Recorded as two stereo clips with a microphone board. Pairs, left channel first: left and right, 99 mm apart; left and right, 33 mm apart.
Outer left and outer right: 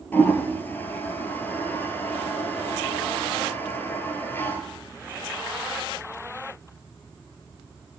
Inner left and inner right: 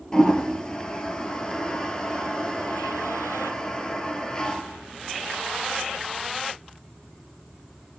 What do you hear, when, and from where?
0.1 s a toilet flushing: 20° left (ahead or behind), 1.4 m